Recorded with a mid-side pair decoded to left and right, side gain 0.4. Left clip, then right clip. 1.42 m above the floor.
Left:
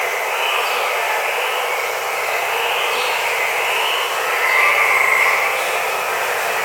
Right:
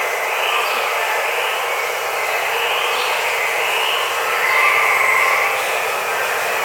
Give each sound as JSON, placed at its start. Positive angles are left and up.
{"t": 0.0, "sound": "running water", "azimuth_deg": 5, "distance_m": 1.0}